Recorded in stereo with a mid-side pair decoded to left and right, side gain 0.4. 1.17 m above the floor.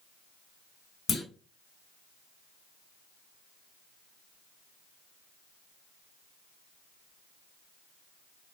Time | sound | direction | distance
1.1 | a clunk | 65° left | 1.3 m